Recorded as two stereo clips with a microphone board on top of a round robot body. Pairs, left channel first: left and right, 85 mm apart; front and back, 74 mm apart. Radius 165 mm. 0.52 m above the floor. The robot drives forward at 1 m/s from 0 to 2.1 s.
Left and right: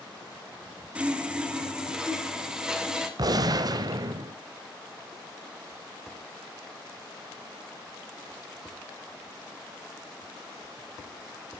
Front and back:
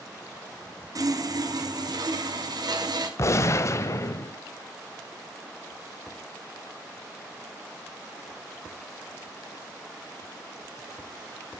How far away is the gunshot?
About 0.7 m.